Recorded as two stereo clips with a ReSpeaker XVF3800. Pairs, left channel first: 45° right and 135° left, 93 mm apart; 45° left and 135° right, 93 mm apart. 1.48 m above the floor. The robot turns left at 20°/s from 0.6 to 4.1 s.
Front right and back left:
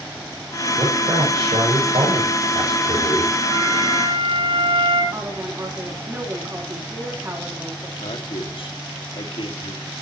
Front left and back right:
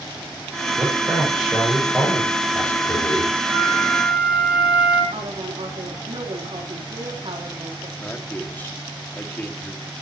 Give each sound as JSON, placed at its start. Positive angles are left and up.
{"t": 0.8, "sound": "a man speaking", "azimuth_deg": 155, "distance_m": 8.0}
{"t": 3.5, "sound": "a flute", "azimuth_deg": 160, "distance_m": 4.0}
{"t": 5.1, "sound": "a woman speaking", "azimuth_deg": -160, "distance_m": 4.0}
{"t": 8.0, "sound": "a man speaking", "azimuth_deg": -25, "distance_m": 2.5}